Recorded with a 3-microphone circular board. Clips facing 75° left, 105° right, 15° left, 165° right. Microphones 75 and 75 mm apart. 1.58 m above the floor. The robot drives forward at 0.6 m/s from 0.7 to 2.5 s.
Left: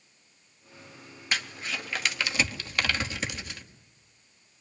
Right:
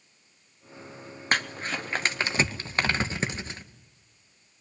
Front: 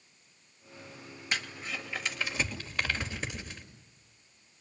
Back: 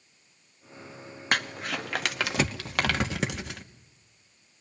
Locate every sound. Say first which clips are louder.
1.3 s crumpling: right 5 dB, back 7 dB; 140° right, 0.8 m; by 3.6 s 160° right, 1.4 m